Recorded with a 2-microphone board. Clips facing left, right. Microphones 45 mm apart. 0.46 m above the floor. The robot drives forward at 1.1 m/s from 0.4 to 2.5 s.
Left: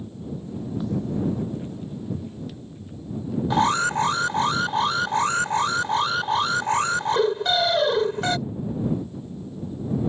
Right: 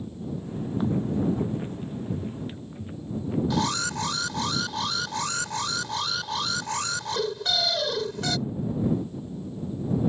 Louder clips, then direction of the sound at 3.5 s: Left 6 dB; 30° left (ahead or behind).